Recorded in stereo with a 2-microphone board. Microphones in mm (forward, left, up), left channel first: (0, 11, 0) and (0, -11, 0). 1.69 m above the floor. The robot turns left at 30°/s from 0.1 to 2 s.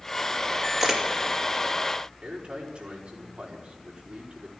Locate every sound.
0.8 s a camera shutter: 10° right (ahead or behind), 2.5 m; by 1.0 s 20° right (ahead or behind), 2.5 m
2.2 s a man speaking: 70° right (ahead or behind), 4.5 m